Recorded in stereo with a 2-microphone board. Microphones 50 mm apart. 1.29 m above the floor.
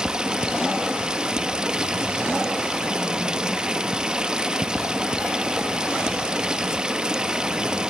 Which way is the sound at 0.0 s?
15° right (ahead or behind).